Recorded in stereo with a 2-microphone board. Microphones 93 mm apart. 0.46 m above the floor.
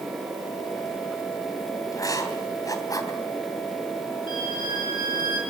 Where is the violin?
55° left (ahead or behind), 8 m.